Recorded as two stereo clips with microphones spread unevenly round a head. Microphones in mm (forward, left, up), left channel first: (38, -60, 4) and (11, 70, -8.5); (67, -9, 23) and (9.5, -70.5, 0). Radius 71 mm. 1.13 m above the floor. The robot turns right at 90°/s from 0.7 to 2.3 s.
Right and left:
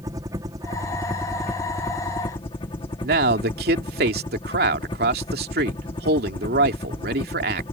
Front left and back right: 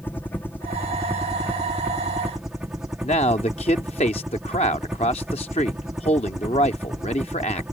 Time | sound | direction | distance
0.0 | a helicopter | 130° left | ?
3.0 | a man speaking | 95° left | ?